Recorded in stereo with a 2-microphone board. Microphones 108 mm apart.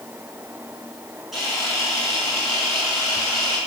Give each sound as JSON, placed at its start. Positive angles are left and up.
{"t": 1.3, "sound": "a camera shutter", "side_deg": 0, "distance_m": 6.0}